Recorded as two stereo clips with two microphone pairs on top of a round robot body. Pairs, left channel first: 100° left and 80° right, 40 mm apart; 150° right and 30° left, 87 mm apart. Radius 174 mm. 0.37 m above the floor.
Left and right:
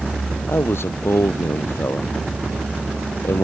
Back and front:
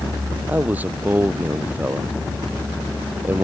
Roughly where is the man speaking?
Left.